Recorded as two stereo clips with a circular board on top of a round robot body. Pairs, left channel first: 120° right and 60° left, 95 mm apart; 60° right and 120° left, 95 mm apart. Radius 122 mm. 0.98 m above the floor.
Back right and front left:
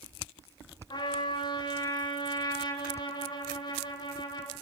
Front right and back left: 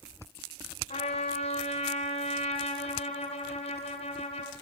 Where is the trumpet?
75° right, 1.4 m.